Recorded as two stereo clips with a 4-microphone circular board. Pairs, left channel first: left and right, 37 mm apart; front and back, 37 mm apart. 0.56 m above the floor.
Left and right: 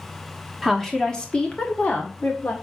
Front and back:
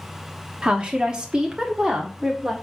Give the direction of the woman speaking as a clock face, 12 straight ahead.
6 o'clock.